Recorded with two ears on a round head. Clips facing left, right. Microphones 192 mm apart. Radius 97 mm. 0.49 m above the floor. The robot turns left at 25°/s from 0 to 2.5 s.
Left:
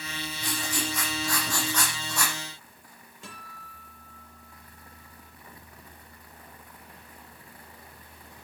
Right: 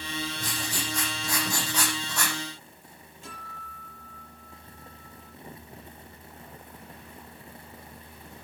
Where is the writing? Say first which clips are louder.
Left 2 dB; 140° right, 9.5 m; by 2.4 s 175° left, 9.5 m.